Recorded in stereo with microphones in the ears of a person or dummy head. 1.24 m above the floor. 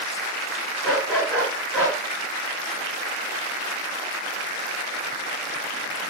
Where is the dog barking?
5° left (ahead or behind), 6 m.